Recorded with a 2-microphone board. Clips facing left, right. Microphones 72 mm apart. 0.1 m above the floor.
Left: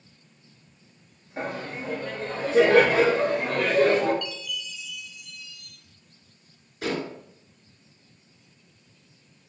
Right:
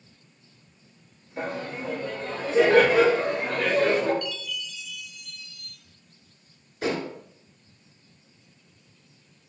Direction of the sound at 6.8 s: 20° right (ahead or behind).